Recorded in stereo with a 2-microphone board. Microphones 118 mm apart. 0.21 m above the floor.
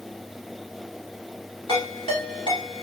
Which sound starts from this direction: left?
A ringtone, at 1.7 s.